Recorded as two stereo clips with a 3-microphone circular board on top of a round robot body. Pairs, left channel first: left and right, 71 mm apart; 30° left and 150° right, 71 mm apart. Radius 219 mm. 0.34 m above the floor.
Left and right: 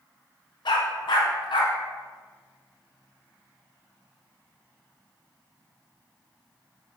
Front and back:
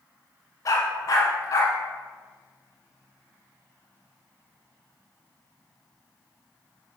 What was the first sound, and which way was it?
A dog barking, 75° left.